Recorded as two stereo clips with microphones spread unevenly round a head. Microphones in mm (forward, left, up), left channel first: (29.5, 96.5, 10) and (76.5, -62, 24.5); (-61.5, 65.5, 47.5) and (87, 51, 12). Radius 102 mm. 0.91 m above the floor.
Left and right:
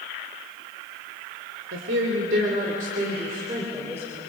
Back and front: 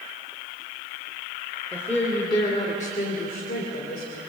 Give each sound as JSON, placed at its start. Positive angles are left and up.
{"t": 1.7, "sound": "a woman speaking", "azimuth_deg": -95, "distance_m": 3.5}